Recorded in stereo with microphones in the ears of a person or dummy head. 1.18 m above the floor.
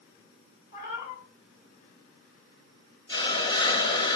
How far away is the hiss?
About 0.8 m.